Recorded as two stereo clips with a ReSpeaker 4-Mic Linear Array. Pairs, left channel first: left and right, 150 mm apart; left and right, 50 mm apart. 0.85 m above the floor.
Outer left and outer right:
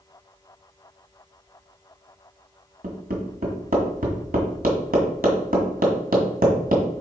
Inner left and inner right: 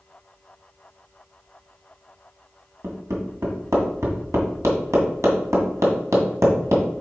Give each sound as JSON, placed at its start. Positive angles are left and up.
{"t": 2.8, "sound": "hammering", "side_deg": -80, "distance_m": 2.0}